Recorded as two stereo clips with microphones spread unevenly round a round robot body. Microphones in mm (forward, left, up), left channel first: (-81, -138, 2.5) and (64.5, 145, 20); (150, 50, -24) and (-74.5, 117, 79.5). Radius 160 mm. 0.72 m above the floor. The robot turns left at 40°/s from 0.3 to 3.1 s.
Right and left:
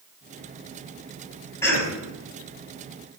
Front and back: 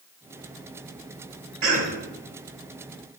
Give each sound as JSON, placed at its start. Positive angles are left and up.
{"t": 1.6, "sound": "a cough", "azimuth_deg": 160, "distance_m": 5.0}